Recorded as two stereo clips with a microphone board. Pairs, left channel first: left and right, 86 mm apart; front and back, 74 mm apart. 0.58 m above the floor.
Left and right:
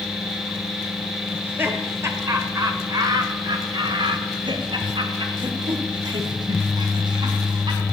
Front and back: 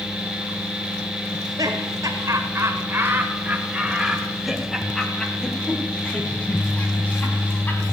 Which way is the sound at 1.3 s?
155° right.